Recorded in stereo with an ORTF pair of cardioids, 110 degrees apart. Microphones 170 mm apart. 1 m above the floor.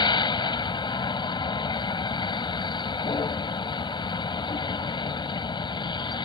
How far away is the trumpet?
I don't hear a trumpet.